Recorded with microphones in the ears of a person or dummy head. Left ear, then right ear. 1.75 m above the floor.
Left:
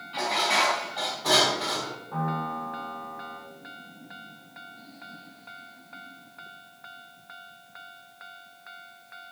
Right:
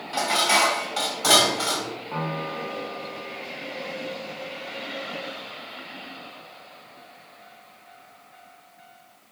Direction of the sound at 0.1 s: 50° right (ahead or behind).